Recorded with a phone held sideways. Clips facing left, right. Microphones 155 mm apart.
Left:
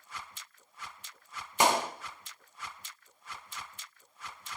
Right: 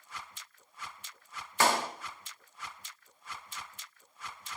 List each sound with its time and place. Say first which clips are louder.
1.6 s a clap: left 2 dB; 15° left (ahead or behind), 1.1 m